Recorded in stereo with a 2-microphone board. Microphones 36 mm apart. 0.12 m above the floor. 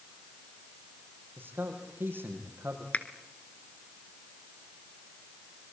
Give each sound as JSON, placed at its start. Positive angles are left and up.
{"t": 1.4, "sound": "a man speaking", "side_deg": -75, "distance_m": 5.5}
{"t": 2.9, "sound": "a finger snap", "side_deg": 45, "distance_m": 1.5}